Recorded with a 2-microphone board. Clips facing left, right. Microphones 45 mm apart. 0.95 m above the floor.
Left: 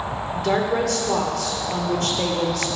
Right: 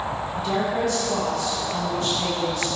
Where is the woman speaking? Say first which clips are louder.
Left 4 dB; 75° left (ahead or behind), 2.5 m.